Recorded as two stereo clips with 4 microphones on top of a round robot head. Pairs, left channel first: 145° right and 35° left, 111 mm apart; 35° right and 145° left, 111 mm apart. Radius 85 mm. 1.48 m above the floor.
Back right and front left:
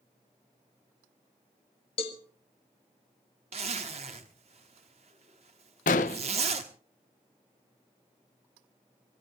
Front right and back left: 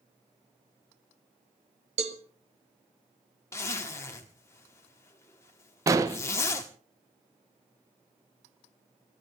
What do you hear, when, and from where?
2.0 s a cowbell: 175° left, 1.5 m
3.5 s a zipper: 25° left, 1.1 m
5.9 s an explosion: 155° right, 0.8 m